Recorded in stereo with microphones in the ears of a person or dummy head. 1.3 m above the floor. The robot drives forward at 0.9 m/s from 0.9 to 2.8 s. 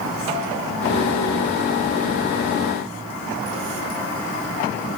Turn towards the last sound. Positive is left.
No sound to turn to.